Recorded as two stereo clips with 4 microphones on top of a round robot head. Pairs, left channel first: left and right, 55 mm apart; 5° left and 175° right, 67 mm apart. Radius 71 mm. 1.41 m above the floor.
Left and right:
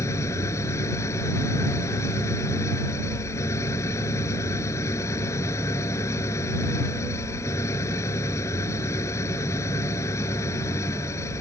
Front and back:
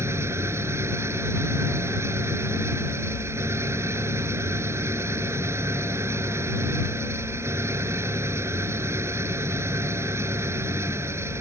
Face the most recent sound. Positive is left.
turn(degrees=135)